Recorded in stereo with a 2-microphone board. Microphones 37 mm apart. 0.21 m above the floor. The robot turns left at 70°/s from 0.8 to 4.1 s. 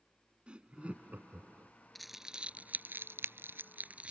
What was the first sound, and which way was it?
Laughter, 30° right (ahead or behind).